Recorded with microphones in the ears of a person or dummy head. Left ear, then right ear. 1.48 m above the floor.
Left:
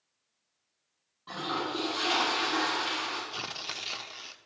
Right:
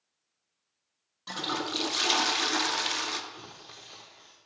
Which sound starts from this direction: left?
Tearing paper, at 3.3 s.